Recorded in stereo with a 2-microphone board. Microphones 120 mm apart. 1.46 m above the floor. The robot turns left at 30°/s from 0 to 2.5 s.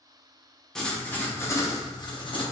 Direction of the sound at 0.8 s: 175° left.